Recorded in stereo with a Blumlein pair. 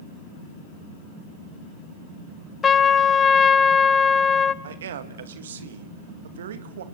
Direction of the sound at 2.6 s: 20° left.